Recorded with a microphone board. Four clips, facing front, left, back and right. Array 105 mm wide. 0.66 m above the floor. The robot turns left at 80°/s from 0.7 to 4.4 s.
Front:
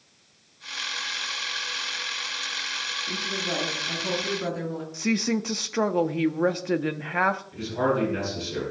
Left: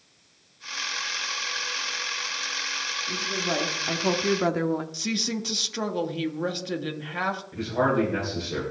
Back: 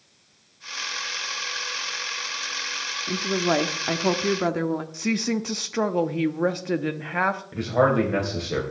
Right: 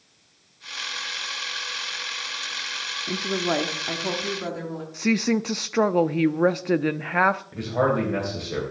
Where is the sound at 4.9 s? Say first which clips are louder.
Right 8 dB, even; 90° right, 0.7 m.